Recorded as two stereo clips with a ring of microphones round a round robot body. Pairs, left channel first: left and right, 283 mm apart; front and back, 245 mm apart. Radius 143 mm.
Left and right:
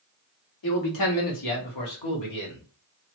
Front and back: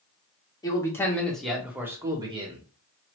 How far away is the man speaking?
About 1.7 m.